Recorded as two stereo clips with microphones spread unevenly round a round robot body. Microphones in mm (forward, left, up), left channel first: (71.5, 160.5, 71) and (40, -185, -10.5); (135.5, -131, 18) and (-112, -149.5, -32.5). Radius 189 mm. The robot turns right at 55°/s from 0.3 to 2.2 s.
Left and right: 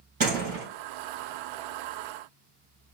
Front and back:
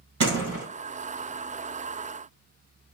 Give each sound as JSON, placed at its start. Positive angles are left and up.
{"t": 0.2, "sound": "a door slam", "azimuth_deg": -165, "distance_m": 3.0}